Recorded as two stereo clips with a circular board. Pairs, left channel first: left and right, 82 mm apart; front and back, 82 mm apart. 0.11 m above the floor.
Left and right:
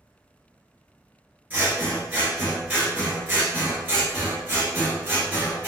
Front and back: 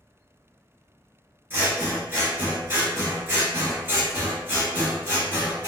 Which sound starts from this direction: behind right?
Scissors, at 1.5 s.